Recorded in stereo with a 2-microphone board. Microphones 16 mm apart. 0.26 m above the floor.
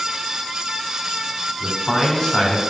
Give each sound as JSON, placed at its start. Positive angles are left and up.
{"t": 1.6, "sound": "a man speaking", "side_deg": 30, "distance_m": 3.0}